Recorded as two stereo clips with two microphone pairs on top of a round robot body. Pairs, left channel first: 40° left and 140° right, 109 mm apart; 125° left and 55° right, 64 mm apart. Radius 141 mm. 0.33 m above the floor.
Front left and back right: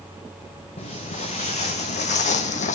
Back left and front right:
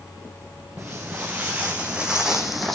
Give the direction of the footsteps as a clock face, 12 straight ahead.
12 o'clock.